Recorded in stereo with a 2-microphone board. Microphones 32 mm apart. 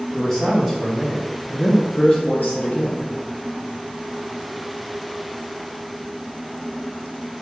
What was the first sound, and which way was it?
A man speaking, 10° left (ahead or behind).